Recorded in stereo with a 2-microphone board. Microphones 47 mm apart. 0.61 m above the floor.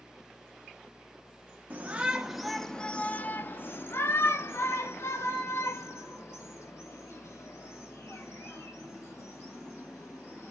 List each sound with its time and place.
1.7 s a shout: 30° right (ahead or behind), 0.9 m; by 10.5 s 75° left (ahead or behind), 5 m